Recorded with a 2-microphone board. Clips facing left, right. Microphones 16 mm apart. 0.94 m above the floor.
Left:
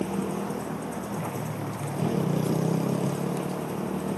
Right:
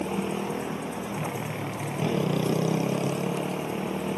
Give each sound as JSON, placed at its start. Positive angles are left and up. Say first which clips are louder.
{"t": 0.0, "sound": "a motorcycle", "louder": "even", "side_deg": -40}